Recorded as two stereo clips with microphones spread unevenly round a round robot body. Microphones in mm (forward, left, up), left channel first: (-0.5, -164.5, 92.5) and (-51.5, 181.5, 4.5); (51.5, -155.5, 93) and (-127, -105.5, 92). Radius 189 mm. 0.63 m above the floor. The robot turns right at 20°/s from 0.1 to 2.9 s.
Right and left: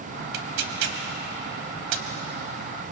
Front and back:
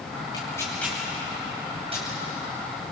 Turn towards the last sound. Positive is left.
turn(degrees=110)